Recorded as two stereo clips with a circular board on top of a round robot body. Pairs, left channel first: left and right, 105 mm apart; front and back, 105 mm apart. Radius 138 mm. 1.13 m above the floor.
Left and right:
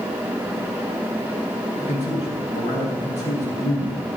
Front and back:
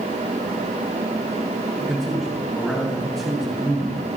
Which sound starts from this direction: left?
A man speaking, at 1.8 s.